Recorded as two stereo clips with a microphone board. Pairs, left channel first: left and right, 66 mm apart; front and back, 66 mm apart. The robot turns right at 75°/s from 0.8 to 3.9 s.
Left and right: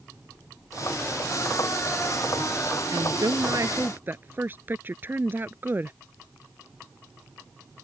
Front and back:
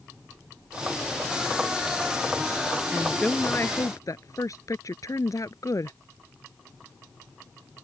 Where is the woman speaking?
105° right; by 6.0 s 30° right.